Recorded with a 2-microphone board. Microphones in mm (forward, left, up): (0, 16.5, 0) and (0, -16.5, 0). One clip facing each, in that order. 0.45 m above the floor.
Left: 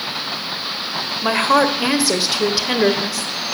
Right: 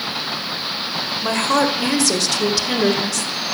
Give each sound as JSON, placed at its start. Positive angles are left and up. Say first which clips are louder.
{"t": 1.2, "sound": "a woman speaking", "louder": "left 3 dB", "side_deg": 20, "distance_m": 1.7}